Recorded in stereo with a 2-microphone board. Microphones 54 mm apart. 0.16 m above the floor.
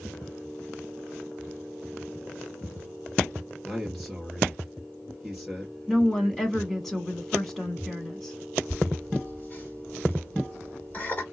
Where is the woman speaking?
5° left (ahead or behind), 1.1 m.